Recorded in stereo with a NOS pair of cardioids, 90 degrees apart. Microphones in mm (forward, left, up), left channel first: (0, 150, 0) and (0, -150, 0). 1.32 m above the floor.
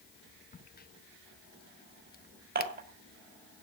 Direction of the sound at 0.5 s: 30° left.